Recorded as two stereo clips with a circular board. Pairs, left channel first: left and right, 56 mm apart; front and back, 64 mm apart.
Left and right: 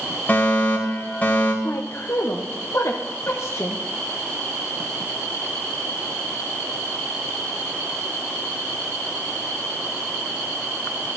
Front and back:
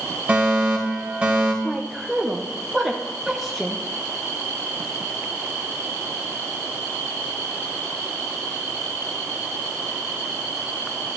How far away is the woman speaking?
About 0.8 m.